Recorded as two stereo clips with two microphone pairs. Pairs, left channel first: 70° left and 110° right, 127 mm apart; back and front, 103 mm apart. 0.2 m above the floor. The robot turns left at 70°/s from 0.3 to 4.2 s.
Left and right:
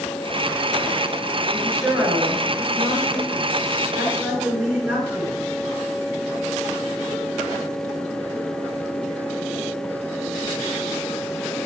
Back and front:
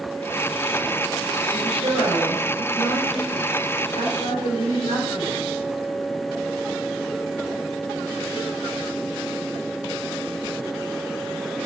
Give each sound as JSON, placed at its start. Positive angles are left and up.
{"t": 1.5, "sound": "a woman speaking", "azimuth_deg": 0, "distance_m": 4.0}